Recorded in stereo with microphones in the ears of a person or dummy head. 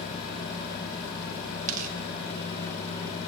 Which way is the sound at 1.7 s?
45° right (ahead or behind).